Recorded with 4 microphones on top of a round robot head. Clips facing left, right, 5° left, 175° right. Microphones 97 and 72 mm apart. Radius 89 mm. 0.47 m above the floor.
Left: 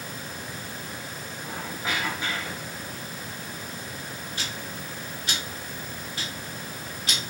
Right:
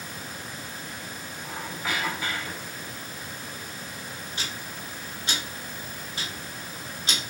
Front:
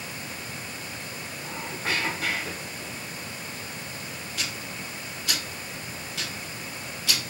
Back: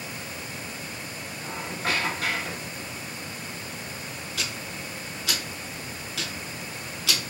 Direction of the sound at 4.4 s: 160° right.